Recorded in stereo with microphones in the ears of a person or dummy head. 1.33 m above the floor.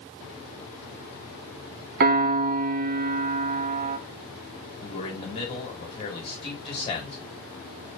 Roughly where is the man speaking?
Left.